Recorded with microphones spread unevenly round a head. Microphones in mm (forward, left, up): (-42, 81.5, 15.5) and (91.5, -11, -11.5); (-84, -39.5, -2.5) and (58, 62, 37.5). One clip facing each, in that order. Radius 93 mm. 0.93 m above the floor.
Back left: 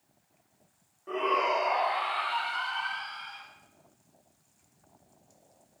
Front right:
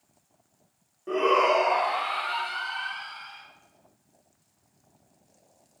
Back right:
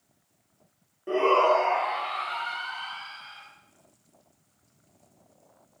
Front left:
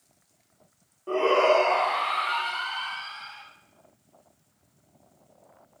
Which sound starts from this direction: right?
A shout, at 1.1 s.